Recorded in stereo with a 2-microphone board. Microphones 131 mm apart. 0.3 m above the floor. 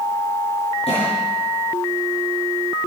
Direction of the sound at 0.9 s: 55° left (ahead or behind).